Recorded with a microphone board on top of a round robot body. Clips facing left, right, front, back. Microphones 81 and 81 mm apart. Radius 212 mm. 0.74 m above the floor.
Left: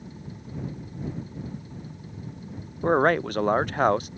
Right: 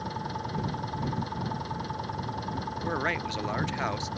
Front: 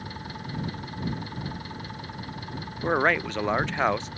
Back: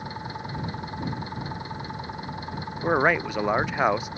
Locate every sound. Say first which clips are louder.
0.0 s an engine running: right 8 dB, back 3 dB; 110° right
2.8 s a man speaking: left 11 dB, back 2 dB; 100° left